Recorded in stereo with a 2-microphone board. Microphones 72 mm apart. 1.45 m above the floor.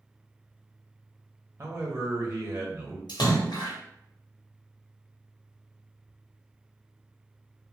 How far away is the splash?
About 0.9 m.